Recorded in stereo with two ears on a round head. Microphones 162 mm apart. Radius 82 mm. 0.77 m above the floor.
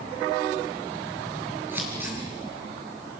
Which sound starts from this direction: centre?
Scissors, at 1.7 s.